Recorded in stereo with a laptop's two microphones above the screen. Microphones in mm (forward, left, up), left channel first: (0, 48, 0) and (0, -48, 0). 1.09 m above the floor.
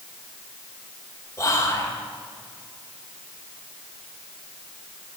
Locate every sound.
1.4 s whispering: 30° left (ahead or behind), 1.3 m